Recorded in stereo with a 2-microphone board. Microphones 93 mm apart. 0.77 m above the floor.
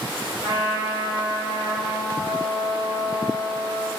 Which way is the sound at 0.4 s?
60° right (ahead or behind).